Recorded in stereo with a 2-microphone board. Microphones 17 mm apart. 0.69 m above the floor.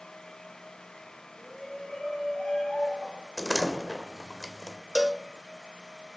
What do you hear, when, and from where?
1.4 s a shout: 65° left (ahead or behind), 8 m; by 3.3 s 75° left (ahead or behind), 6.5 m
3.4 s a door slam: 5° left (ahead or behind), 1.9 m
5.0 s a cowbell: 40° right (ahead or behind), 0.7 m